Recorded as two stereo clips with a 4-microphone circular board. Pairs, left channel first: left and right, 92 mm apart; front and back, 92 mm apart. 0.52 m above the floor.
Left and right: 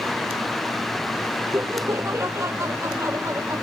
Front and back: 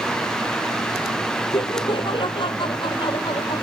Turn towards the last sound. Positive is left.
turn(degrees=-30)